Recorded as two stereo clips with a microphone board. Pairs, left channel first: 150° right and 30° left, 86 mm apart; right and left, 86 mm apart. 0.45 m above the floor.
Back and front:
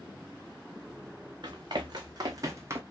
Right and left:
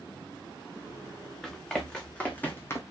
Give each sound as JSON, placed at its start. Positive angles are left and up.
{"t": 1.4, "sound": "running footsteps", "azimuth_deg": -5, "distance_m": 2.0}